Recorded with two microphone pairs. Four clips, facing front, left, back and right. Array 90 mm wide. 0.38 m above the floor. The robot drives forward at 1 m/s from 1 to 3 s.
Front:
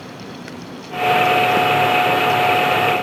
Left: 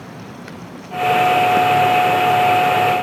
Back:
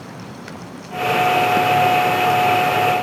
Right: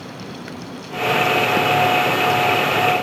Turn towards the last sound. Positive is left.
No sound to turn to.